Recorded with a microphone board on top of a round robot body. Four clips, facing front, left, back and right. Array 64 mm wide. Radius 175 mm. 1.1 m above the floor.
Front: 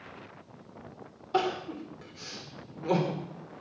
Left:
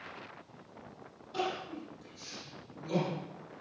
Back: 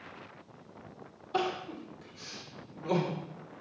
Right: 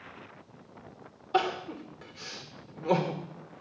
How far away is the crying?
About 2.5 m.